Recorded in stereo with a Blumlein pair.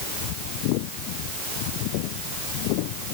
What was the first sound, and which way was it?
Only background noise.